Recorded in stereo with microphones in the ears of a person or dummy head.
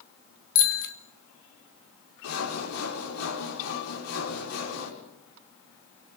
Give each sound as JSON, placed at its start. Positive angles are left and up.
{"t": 0.6, "sound": "a bicycle bell", "side_deg": 75, "distance_m": 2.5}
{"t": 2.2, "sound": "sawing", "side_deg": 90, "distance_m": 6.0}